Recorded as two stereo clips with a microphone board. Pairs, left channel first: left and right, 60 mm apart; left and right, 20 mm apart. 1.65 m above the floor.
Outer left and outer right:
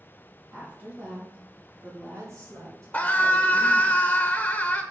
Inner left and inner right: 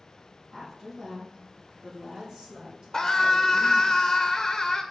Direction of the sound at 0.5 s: 20° right (ahead or behind).